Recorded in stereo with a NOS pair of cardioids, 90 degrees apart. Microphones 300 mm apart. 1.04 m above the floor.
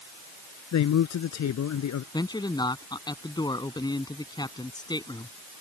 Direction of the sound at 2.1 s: 15° left.